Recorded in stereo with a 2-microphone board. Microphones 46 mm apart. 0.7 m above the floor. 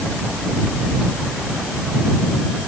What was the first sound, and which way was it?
Only background noise.